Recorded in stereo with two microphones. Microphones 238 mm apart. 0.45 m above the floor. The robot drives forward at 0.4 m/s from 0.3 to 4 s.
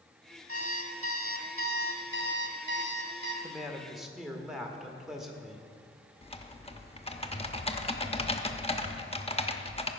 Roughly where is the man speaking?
Centre.